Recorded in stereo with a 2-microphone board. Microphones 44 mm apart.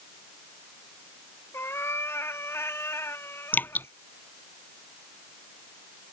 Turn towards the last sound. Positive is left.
turn(degrees=50)  # may be behind; listen again after turning